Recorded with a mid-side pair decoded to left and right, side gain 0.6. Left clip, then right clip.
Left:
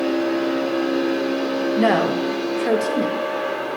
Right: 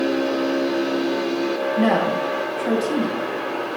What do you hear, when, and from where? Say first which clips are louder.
1.8 s a woman speaking: left 2 dB; 25° left, 1.2 m